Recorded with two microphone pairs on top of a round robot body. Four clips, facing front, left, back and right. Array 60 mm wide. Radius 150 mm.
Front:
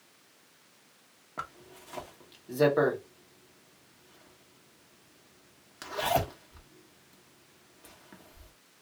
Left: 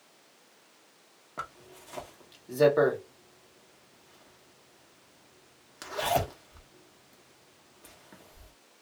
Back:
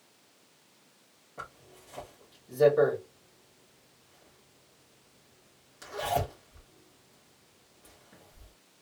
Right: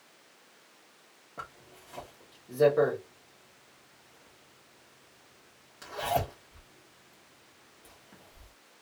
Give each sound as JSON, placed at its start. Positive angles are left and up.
{"t": 1.4, "sound": "a zipper", "azimuth_deg": 45, "distance_m": 1.5}